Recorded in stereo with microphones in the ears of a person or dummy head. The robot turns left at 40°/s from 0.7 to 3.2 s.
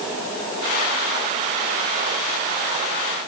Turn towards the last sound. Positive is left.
No sound to turn to.